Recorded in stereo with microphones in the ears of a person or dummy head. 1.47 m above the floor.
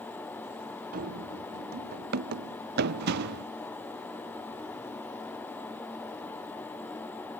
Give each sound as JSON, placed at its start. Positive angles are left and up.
{"t": 0.9, "sound": "running footsteps", "side_deg": -60}